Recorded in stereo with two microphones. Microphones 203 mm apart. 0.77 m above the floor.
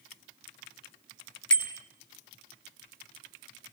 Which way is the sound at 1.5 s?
65° left (ahead or behind).